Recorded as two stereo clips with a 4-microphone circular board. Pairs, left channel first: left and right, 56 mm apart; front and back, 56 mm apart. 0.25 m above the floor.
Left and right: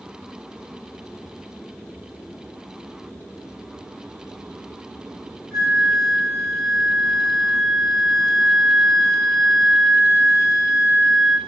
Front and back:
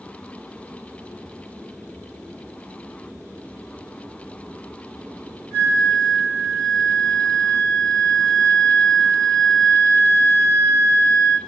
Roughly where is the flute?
Ahead.